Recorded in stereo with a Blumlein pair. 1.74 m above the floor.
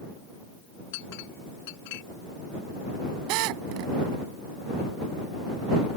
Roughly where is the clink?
Ahead left.